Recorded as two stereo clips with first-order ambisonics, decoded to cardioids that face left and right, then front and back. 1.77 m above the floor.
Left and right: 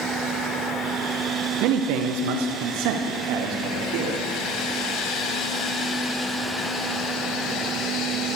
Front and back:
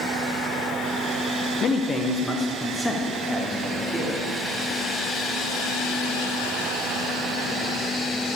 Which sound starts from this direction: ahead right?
A man speaking, at 1.6 s.